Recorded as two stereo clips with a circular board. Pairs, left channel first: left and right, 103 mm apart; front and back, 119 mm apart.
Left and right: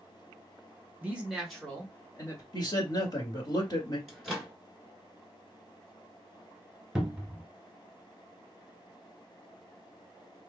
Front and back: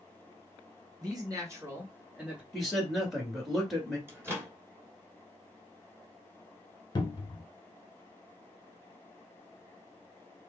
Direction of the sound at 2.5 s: 90° left.